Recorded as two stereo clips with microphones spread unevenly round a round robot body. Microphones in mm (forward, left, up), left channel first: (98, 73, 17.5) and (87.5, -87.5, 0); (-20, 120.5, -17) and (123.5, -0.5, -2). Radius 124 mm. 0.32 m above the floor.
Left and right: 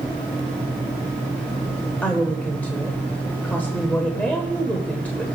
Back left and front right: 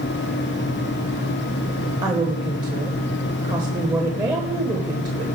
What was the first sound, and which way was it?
A woman speaking, 5° left.